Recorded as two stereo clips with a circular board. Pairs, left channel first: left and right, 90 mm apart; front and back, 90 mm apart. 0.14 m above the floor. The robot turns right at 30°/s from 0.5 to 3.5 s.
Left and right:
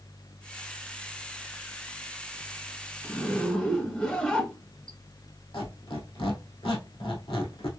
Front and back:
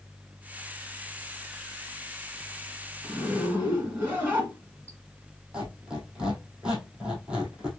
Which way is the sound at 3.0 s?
135° left.